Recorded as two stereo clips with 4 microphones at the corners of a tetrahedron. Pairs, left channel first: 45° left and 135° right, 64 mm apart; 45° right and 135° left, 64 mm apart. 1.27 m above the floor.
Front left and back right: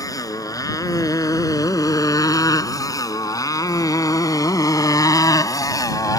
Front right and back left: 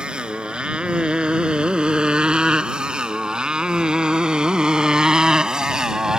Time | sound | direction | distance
0.0 | a motorcycle | 60° left | ?